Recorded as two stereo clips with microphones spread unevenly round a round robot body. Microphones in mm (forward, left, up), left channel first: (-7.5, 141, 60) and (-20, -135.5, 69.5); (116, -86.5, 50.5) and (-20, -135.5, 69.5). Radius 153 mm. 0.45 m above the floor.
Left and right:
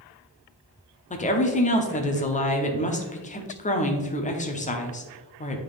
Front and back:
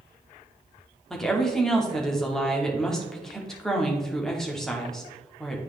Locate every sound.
1.1 s a woman speaking: 90° left, 1.0 m